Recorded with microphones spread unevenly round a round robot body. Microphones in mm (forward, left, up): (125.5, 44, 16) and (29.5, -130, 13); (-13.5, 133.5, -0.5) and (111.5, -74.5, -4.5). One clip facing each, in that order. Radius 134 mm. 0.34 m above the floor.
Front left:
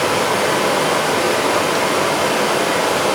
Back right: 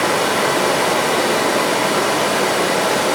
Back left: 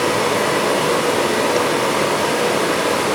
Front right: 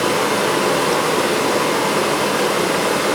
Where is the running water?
60° right, 0.8 m.